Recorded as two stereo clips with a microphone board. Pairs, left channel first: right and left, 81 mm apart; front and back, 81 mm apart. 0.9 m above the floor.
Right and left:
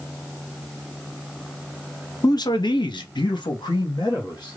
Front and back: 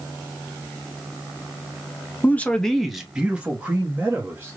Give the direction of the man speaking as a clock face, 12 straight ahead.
2 o'clock.